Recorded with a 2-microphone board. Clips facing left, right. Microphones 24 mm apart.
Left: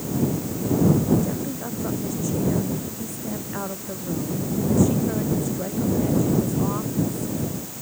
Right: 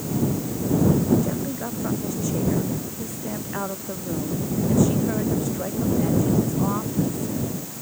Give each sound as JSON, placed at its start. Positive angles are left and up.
{"t": 1.2, "sound": "a woman speaking", "side_deg": -15}